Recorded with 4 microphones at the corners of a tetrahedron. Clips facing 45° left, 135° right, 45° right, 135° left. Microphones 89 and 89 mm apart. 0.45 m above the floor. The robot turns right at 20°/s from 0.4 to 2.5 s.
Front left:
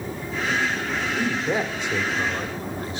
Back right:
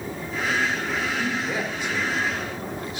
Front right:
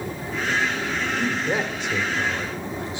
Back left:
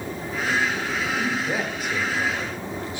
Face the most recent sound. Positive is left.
turn(degrees=10)